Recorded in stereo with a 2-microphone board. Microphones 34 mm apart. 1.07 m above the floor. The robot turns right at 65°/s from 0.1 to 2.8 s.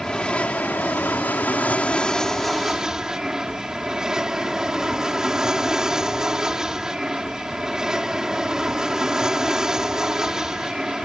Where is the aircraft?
20° left; by 11.1 s 160° right.